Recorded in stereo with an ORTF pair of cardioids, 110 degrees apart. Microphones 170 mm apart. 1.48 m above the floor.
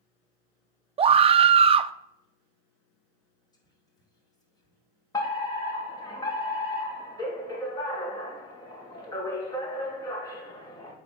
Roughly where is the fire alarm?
Ahead.